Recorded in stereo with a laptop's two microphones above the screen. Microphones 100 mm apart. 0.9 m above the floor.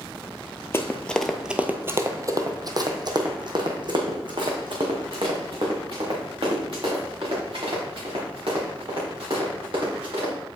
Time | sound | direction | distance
0.7 | running footsteps | 25° left (ahead or behind) | 0.9 m